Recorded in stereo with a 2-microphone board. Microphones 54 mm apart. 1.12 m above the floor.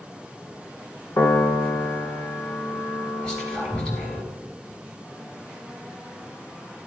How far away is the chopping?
I don't hear chopping.